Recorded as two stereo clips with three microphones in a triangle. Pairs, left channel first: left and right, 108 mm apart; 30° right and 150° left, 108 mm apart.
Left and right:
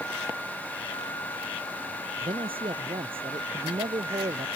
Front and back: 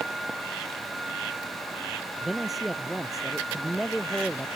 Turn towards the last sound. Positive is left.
turn(degrees=-120)